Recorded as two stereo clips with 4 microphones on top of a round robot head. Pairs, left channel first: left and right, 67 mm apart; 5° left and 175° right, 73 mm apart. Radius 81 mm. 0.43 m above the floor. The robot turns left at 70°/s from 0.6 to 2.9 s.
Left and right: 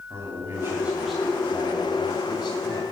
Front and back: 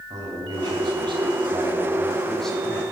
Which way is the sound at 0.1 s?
145° right.